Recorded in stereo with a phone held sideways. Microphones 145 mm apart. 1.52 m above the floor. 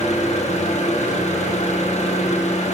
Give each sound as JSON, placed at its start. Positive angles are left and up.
{"t": 0.0, "sound": "an engine running", "side_deg": 50, "distance_m": 1.4}